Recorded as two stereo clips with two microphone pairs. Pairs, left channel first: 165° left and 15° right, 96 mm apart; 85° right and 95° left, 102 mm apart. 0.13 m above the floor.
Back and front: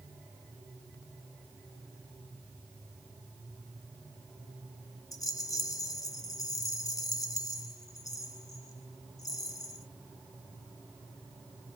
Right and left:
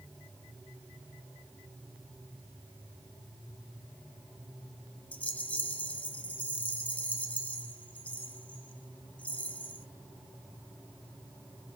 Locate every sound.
5.1 s a rattle: 155° right, 0.7 m